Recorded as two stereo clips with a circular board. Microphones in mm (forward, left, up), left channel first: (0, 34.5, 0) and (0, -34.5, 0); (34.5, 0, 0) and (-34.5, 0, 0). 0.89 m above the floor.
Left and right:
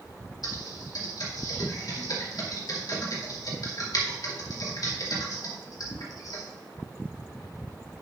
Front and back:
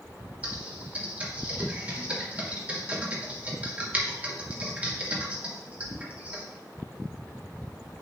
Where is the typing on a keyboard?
110° left, 2 m.